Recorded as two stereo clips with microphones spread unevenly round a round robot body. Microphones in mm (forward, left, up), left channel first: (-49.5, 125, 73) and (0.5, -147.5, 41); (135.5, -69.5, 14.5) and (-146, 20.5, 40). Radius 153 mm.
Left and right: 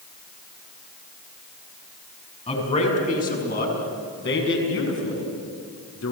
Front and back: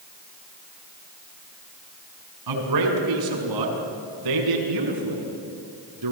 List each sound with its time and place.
2.5 s a man speaking: 170° left, 5.5 m; by 6.1 s 135° left, 6.5 m